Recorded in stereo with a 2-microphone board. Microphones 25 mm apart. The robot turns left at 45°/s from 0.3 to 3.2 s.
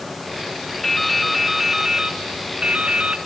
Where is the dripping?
20° left, 1.0 m; by 3.2 s 85° right, 1.0 m.